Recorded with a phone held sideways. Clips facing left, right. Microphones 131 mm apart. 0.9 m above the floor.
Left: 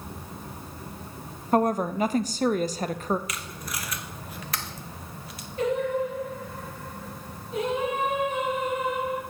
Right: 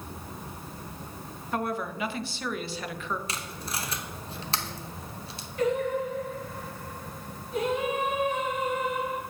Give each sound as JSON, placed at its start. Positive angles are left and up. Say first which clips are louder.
{"t": 1.5, "sound": "a woman speaking", "louder": "left 8 dB", "side_deg": 40, "distance_m": 0.5}
{"t": 3.3, "sound": "tape being pulled", "louder": "even", "side_deg": -25, "distance_m": 0.8}
{"t": 5.6, "sound": "singing", "louder": "left 1 dB", "side_deg": 25, "distance_m": 5.0}